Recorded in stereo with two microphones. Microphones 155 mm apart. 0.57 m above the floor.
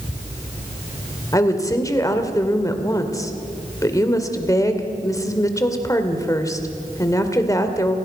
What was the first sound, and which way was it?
A woman speaking, 20° left (ahead or behind).